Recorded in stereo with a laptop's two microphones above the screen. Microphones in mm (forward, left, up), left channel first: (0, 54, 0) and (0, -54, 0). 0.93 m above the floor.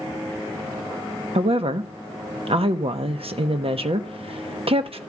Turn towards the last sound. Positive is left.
turn(degrees=-60)  # may be behind; listen again after turning